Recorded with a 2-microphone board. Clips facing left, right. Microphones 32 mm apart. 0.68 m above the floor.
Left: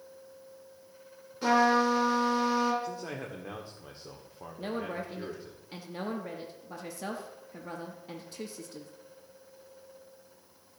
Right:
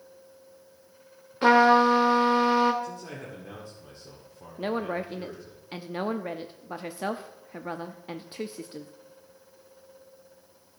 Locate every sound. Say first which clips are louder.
1.4 s a trumpet: right 6 dB; 45° right (ahead or behind), 1.4 m
2.8 s a man speaking: left 1 dB; 25° left (ahead or behind), 1.5 m
4.6 s a woman speaking: right 6 dB; 35° right (ahead or behind), 0.7 m